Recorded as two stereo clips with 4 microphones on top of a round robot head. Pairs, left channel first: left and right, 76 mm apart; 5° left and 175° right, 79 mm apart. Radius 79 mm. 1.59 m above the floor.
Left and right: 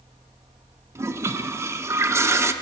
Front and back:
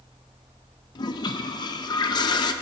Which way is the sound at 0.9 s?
35° right.